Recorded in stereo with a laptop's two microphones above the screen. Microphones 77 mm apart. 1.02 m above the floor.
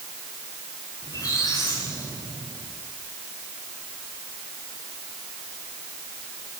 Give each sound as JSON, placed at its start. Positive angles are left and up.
{"t": 1.0, "sound": "a squeak", "side_deg": 50, "distance_m": 7.5}